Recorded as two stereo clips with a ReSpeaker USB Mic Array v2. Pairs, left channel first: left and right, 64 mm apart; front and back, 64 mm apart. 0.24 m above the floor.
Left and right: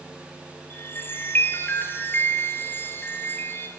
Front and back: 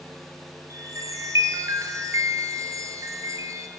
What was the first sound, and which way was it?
A chime, 145° left.